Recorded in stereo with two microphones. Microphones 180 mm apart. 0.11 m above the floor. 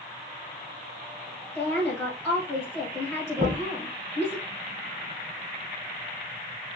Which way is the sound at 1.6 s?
Centre (ahead or behind).